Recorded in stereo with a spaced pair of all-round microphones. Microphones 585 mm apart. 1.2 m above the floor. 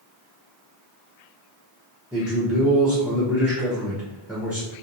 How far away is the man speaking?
About 0.7 m.